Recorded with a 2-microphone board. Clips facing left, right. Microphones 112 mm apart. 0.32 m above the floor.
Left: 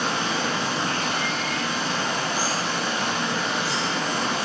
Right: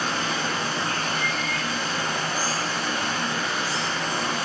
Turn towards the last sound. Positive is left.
turn(degrees=75)  # may be behind; listen again after turning